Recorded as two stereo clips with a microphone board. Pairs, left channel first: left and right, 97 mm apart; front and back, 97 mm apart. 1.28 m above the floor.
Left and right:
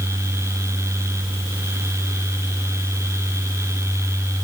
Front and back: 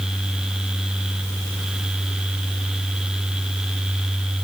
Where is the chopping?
No chopping in this recording.